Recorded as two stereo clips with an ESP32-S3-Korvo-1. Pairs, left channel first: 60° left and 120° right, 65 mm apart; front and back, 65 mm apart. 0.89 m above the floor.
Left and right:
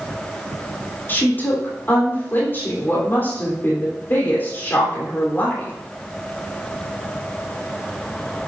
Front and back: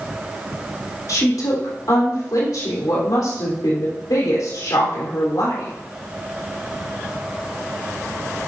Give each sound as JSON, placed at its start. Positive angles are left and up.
{"t": 1.1, "sound": "a woman speaking", "azimuth_deg": 5, "distance_m": 3.0}